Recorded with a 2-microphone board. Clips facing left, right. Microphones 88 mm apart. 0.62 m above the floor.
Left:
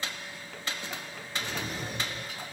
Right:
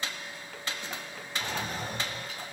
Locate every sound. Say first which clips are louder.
1.4 s a drawer: right 2 dB; 55° right (ahead or behind), 1.4 m